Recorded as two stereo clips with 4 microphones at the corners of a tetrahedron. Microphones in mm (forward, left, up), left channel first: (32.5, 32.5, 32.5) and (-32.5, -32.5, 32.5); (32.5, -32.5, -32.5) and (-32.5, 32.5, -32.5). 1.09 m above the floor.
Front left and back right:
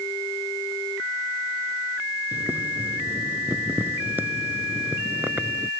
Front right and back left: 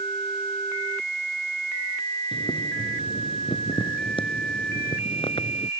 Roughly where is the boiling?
Ahead right.